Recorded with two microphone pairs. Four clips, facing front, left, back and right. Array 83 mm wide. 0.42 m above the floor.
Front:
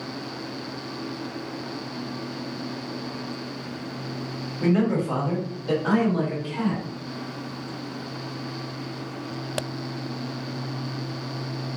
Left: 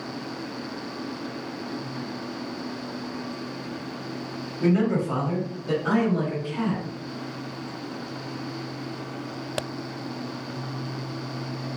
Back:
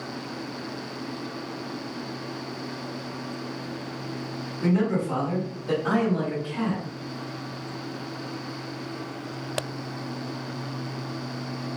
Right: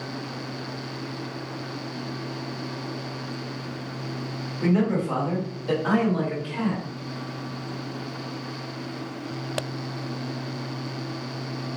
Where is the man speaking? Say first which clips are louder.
Left 1 dB, front 2 dB; 20° right, 1.4 m; by 6.8 s 80° right, 1.8 m.